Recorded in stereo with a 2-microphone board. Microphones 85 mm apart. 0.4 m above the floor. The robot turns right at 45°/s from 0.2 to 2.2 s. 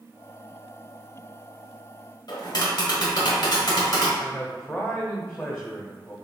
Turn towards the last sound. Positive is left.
turn(degrees=15)  # may be behind; listen again after turning